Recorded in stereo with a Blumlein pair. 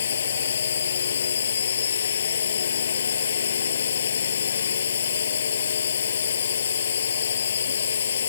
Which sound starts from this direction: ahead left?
A drone, at 0.0 s.